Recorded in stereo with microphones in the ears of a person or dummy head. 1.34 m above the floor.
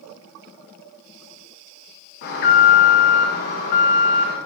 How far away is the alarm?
About 0.9 m.